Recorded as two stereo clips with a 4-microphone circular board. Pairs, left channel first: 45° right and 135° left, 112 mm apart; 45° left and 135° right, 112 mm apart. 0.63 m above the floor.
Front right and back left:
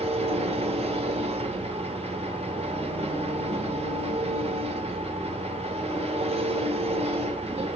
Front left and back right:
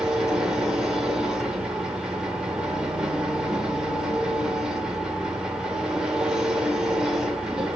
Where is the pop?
I don't hear a pop.